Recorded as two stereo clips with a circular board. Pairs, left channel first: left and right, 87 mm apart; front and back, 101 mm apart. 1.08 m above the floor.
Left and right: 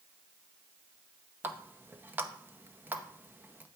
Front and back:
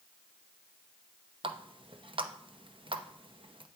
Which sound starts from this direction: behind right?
A running tap, at 1.4 s.